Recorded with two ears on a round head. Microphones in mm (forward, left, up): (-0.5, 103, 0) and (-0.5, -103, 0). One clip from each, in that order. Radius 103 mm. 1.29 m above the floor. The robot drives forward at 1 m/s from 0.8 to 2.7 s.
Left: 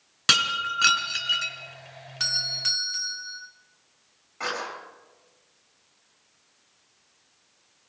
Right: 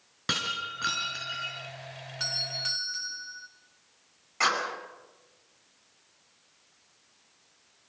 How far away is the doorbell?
About 1.4 m.